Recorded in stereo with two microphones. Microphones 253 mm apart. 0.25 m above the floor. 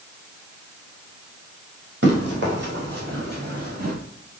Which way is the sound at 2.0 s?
50° right (ahead or behind).